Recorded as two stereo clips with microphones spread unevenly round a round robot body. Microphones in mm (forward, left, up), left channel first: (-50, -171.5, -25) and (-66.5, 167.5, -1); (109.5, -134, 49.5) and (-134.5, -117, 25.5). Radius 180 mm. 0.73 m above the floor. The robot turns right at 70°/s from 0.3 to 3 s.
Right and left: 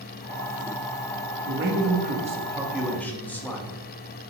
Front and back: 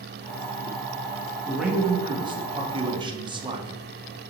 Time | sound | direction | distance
1.5 | a man speaking | 95° left | 1.2 m